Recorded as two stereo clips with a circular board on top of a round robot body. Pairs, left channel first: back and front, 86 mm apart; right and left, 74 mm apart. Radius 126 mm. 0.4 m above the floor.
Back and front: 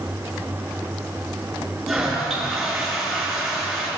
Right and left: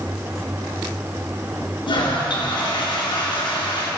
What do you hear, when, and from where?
1.9 s a toilet flushing: 90° right, 6.5 m